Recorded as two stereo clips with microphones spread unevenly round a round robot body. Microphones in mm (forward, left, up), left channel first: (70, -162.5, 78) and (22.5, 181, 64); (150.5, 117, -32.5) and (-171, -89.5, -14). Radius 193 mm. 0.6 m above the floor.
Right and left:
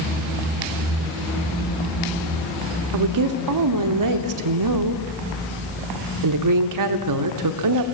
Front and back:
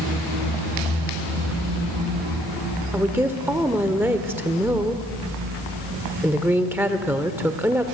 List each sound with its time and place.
2.9 s a woman speaking: 125° left, 1.3 m